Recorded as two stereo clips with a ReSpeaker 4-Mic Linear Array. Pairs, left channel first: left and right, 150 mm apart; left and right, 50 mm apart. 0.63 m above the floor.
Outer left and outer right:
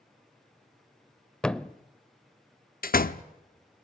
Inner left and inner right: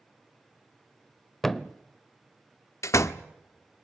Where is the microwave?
I don't hear a microwave.